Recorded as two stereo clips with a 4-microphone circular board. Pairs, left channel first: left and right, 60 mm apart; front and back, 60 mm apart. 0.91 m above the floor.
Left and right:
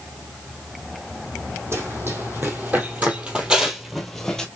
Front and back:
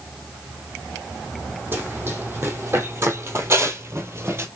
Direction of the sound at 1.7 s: 130° right.